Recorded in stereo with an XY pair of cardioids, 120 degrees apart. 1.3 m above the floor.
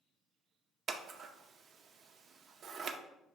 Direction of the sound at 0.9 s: 50° right.